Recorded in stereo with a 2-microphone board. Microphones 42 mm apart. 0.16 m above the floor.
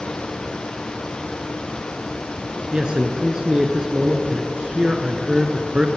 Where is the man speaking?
20° right (ahead or behind), 2 m.